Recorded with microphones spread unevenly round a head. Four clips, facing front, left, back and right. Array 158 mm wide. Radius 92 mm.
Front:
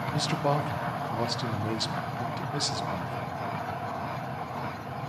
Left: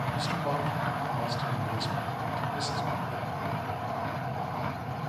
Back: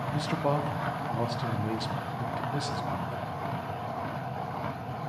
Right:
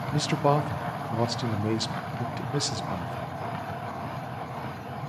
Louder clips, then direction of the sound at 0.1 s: Right 11 dB, front 1 dB; 90° right.